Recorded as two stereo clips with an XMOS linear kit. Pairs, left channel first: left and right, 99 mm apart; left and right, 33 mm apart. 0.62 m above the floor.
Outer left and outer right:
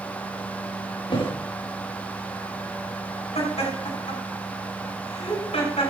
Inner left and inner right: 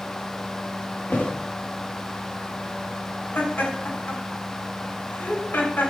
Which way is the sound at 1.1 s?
55° left (ahead or behind).